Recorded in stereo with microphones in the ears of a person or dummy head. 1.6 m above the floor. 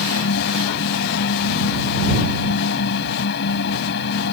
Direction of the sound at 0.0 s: 65° left (ahead or behind).